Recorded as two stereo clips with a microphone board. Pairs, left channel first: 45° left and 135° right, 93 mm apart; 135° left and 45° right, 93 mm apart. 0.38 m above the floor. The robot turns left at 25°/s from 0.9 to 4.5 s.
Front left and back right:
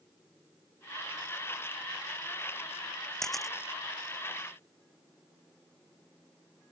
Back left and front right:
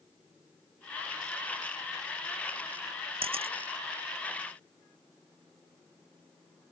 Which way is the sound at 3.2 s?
40° right.